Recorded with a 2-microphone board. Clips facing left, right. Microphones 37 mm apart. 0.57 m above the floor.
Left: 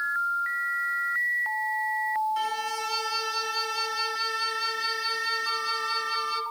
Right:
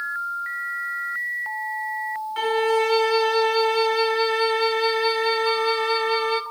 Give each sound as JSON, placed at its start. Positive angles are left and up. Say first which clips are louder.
{"t": 2.4, "sound": "a violin", "louder": "right 9 dB", "side_deg": -40, "distance_m": 0.8}